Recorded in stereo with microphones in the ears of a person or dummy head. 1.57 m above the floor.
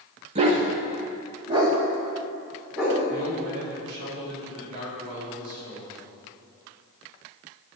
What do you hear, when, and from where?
0.3 s a dog barking: 35° right (ahead or behind), 1.2 m; by 3.0 s 5° right (ahead or behind), 2.5 m
3.1 s a man speaking: 60° right (ahead or behind), 3.5 m